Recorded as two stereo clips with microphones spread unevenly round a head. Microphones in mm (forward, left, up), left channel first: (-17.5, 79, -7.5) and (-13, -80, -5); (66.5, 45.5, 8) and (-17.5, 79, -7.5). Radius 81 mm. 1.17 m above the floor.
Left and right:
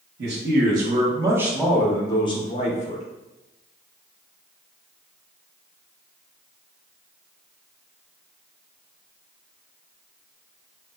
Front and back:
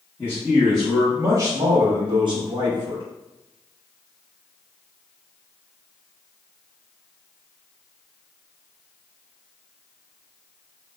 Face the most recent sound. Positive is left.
turn(degrees=135)